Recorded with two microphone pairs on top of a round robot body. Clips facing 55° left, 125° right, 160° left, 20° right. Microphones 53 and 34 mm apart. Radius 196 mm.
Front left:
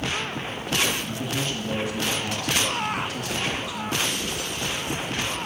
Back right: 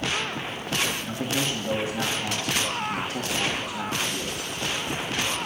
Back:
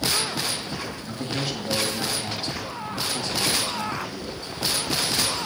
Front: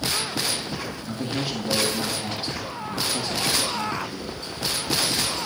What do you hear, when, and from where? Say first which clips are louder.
1.1 s a man speaking: back right 1 dB, front 1 dB; 80° right, 1.8 m